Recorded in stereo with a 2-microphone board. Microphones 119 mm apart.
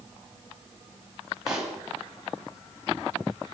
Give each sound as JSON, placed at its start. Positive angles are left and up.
{"t": 1.5, "sound": "a pop", "side_deg": -5, "distance_m": 3.5}